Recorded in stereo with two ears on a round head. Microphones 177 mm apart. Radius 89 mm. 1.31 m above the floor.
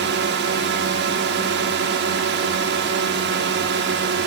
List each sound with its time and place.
0.0 s a drone: 60° right (ahead or behind)